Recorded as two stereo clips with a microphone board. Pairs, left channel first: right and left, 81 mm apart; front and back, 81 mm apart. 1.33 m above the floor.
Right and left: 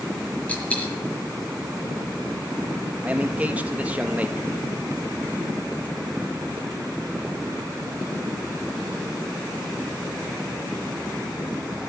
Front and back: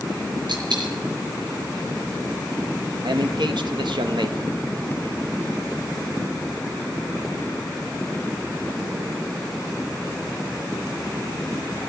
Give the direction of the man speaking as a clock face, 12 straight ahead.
7 o'clock.